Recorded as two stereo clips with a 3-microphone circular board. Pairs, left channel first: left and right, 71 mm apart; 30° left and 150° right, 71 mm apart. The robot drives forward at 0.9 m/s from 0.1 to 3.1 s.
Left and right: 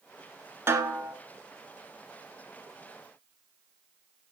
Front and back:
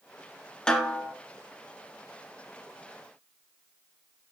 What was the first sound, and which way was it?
A snare drum, 45° right.